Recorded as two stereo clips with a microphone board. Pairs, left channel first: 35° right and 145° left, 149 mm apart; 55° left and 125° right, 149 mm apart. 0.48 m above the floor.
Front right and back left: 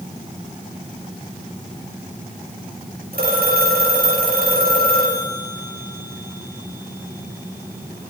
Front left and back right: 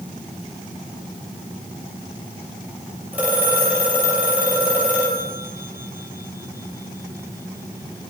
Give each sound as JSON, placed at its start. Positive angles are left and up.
{"t": 3.1, "sound": "a phone ringing", "azimuth_deg": 160, "distance_m": 8.5}